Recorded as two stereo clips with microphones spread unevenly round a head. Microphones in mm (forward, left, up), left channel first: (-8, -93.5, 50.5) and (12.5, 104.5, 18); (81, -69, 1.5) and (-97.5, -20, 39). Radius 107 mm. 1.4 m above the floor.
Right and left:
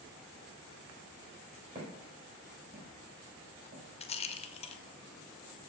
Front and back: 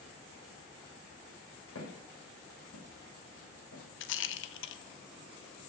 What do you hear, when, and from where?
1.8 s footsteps: 20° left, 6 m; by 3.8 s 15° left, 4.5 m
4.0 s a rattle: 35° right, 0.8 m